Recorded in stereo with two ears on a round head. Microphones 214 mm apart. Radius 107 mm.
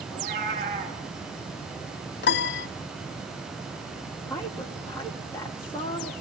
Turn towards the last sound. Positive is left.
turn(degrees=15)  # may be behind; listen again after turning